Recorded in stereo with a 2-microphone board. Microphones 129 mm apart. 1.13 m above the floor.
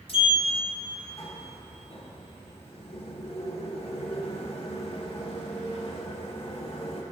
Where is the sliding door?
45° left (ahead or behind), 1.1 m.